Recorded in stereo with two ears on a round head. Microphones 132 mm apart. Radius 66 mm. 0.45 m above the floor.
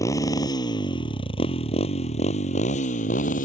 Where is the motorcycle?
20° left (ahead or behind); by 3.5 s 55° left (ahead or behind).